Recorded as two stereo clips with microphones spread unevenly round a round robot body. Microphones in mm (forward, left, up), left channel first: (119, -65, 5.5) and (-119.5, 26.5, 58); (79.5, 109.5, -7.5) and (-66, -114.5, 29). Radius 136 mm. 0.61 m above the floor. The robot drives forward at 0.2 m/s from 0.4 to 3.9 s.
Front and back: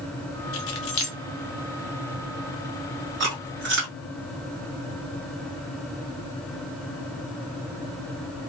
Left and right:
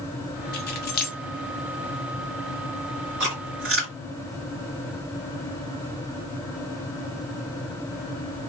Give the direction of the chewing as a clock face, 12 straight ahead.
5 o'clock.